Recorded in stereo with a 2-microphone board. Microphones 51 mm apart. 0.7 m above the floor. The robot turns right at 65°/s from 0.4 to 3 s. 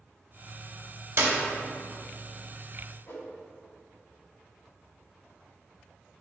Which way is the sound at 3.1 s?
55° left (ahead or behind).